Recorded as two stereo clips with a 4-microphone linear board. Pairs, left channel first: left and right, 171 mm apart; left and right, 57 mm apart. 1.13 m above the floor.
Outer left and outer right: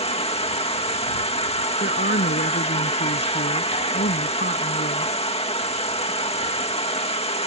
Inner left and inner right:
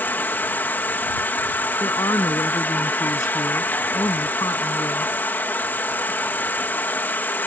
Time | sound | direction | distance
0.0 | an insect | 35° left (ahead or behind) | ?
1.8 | a woman speaking | 70° left (ahead or behind) | ?